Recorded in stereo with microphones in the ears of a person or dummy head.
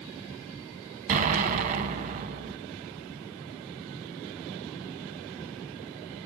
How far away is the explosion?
About 1.0 m.